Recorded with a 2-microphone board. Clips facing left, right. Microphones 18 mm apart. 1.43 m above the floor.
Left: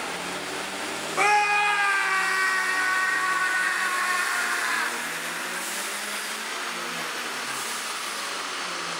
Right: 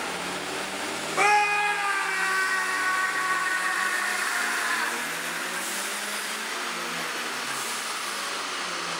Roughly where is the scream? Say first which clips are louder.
Left 1 dB; centre.